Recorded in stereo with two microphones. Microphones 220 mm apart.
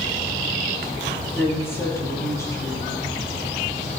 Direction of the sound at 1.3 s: 15° left (ahead or behind).